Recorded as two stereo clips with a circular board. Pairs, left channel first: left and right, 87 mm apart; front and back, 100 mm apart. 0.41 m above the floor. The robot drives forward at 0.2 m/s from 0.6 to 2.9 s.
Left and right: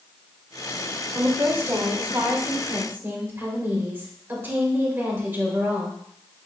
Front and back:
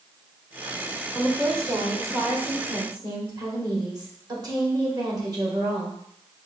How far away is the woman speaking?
About 0.9 m.